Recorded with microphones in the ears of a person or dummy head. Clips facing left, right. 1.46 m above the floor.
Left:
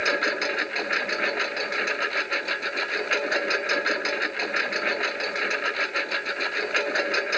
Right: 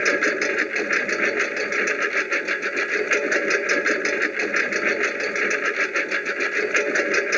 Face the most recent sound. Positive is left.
turn(degrees=-45)  # may be behind; listen again after turning